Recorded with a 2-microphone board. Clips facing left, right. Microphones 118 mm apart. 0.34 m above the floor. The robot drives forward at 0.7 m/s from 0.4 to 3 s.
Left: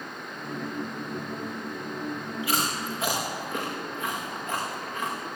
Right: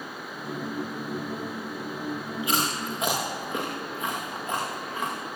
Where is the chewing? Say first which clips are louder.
Right 1 dB; 20° right (ahead or behind), 6.5 m.